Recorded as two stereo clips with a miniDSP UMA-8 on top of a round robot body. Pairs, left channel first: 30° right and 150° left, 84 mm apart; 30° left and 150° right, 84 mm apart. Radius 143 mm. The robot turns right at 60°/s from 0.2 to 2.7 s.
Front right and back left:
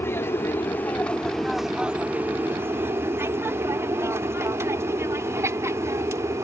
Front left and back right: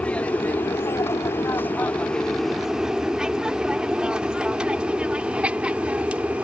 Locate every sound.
0.0 s an aircraft: 25° right; by 6.5 s 150° left